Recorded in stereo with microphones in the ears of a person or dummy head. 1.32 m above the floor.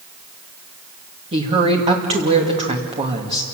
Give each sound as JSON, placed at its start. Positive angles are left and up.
{"t": 1.3, "sound": "a woman speaking", "side_deg": -30, "distance_m": 2.5}